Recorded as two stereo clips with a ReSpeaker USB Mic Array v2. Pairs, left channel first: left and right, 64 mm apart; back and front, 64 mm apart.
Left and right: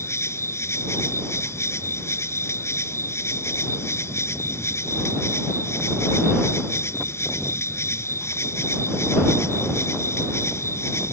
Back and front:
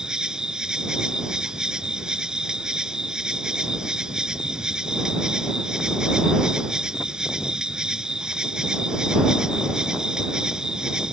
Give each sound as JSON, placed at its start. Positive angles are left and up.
{"t": 0.0, "sound": "an insect", "azimuth_deg": 75}